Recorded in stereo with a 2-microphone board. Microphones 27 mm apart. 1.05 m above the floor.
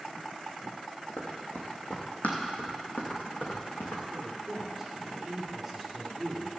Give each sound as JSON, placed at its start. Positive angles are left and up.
{"t": 1.2, "sound": "running footsteps", "side_deg": 55, "distance_m": 2.0}
{"t": 4.1, "sound": "a man speaking", "side_deg": -5, "distance_m": 3.0}